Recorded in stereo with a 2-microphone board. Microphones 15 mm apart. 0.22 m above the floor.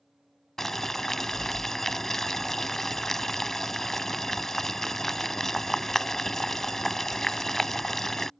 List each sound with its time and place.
0.6 s boiling: 25° left (ahead or behind)